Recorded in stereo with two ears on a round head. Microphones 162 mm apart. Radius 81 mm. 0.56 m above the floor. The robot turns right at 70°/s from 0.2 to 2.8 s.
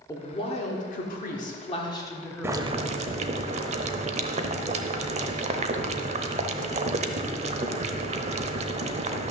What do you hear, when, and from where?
0.1 s a woman speaking: 25° left, 1.8 m; by 2.9 s 155° right, 1.8 m
2.4 s boiling: 15° right (ahead or behind), 0.8 m; by 9.3 s 40° right (ahead or behind), 0.8 m